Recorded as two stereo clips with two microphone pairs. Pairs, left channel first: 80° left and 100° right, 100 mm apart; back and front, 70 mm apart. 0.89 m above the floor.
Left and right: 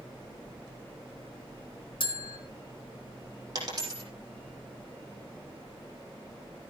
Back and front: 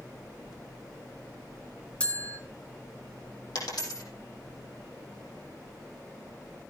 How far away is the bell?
About 1.6 m.